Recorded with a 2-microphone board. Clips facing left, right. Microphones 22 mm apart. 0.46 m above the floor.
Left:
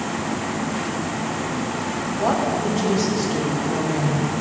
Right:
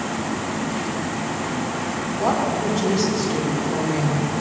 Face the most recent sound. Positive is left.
turn(degrees=-55)  # may be behind; listen again after turning